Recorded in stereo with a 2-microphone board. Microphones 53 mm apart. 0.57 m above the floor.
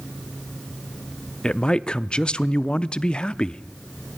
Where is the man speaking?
20° left (ahead or behind), 0.6 m.